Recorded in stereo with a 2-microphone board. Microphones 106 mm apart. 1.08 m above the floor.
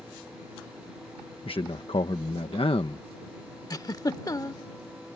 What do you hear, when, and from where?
1.4 s a man speaking: 60° left (ahead or behind)
3.7 s a giggle: 35° left (ahead or behind)